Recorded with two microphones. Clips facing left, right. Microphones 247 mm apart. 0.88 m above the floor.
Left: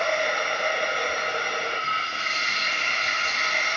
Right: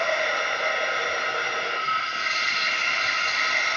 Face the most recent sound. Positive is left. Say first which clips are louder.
# left 1 dB
turn(degrees=50)  # may be behind; listen again after turning